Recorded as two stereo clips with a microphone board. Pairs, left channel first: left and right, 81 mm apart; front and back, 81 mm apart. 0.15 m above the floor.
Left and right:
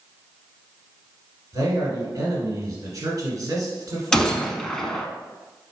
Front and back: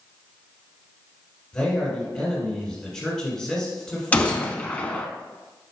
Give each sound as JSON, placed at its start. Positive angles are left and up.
{"t": 1.5, "sound": "a man speaking", "azimuth_deg": -75, "distance_m": 1.8}
{"t": 4.1, "sound": "a gunshot", "azimuth_deg": 20, "distance_m": 0.5}